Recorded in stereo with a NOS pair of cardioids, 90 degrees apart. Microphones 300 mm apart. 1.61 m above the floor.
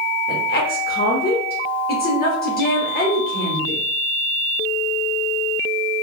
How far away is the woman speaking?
About 1.0 m.